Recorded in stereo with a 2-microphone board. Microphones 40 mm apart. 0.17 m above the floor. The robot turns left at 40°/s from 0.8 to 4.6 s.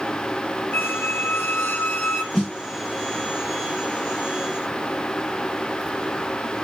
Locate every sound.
0.7 s a squeak: 105° left, 0.9 m; by 2.2 s 45° left, 0.9 m
2.3 s a snare drum: 15° left (ahead or behind), 2.5 m; by 2.5 s 25° left (ahead or behind), 2.5 m